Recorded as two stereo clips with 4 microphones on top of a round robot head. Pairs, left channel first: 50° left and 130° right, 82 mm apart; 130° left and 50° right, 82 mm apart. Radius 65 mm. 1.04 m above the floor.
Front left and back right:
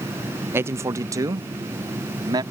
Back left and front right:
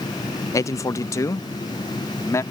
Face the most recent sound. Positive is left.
turn(degrees=-175)